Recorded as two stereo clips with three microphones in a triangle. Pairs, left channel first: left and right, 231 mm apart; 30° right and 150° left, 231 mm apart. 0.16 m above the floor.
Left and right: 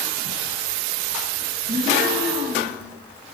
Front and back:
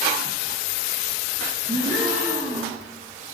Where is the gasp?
145° right, 3 m.